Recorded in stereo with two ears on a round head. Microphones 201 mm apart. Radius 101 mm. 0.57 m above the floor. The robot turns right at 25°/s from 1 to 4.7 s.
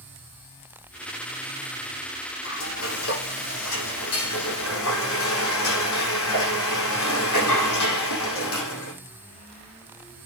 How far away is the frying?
About 7.5 m.